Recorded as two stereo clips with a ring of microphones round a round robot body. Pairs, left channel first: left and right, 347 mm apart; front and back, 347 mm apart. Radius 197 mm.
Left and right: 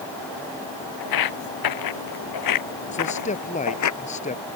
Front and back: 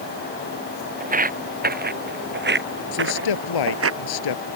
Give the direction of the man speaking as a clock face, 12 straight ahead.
11 o'clock.